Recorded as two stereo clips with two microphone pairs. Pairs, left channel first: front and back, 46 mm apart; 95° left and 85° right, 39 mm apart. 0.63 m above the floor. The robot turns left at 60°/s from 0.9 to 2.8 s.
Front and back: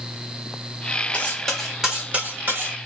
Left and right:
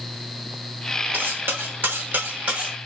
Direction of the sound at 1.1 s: 55° right.